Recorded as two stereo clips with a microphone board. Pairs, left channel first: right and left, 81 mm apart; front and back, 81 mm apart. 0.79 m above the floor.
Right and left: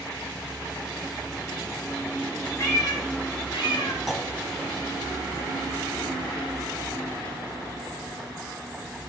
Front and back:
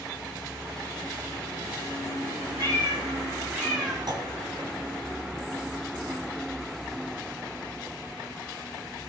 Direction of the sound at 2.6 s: 145° right.